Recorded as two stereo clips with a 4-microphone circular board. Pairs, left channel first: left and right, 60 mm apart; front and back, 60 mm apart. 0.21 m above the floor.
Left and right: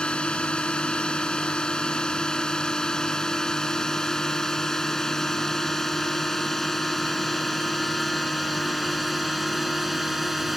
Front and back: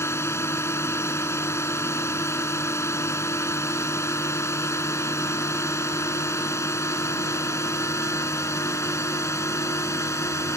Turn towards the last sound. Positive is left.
turn(degrees=0)